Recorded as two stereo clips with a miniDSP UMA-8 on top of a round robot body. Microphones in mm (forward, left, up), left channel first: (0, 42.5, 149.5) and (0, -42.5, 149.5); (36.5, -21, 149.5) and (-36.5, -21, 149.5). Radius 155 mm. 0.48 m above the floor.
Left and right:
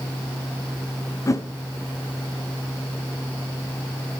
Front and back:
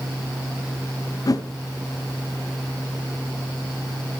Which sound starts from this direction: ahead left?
A whoosh, at 1.3 s.